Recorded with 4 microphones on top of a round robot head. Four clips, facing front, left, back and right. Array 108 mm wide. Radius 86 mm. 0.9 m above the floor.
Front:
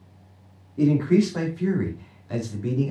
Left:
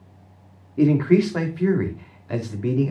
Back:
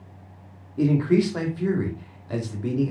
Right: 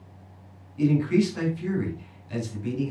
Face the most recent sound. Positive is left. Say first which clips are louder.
# left 5 dB, front 1 dB
turn(degrees=100)